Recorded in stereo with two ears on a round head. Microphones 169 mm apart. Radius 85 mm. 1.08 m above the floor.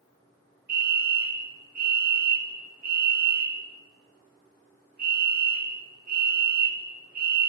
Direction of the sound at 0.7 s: 50° right (ahead or behind).